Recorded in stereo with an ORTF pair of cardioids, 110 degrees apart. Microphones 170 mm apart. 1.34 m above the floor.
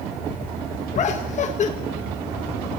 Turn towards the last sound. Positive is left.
turn(degrees=45)